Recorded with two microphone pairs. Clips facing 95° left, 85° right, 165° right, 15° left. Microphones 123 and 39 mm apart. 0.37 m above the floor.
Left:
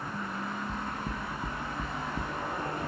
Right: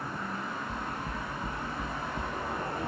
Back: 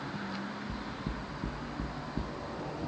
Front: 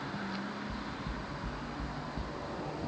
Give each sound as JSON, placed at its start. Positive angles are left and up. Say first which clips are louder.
{"t": 0.7, "sound": "knocking", "louder": "even, back 1 dB", "azimuth_deg": 165, "distance_m": 2.5}